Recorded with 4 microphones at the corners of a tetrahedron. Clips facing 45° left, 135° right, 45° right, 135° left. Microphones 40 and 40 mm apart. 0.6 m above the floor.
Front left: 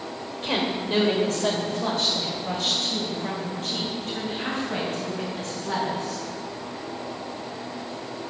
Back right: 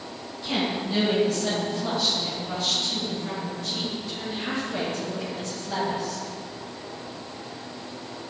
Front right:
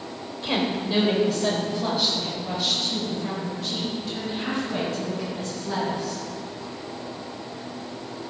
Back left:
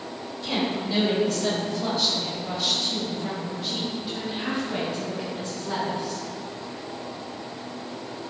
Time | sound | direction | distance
0.4 | a woman speaking | 10° left | 2.5 m